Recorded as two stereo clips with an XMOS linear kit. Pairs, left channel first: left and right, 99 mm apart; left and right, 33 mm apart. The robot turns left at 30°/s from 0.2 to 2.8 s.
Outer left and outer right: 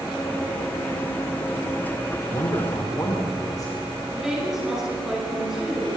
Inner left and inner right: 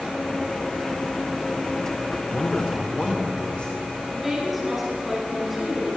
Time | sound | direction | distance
2.3 | a man speaking | 55° left (ahead or behind) | 2.5 m
4.1 | a woman speaking | 5° right (ahead or behind) | 7 m